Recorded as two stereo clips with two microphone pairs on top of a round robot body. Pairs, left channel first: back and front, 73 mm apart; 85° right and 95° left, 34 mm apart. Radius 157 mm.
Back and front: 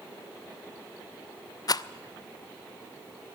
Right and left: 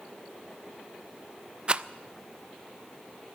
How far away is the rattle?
About 0.6 m.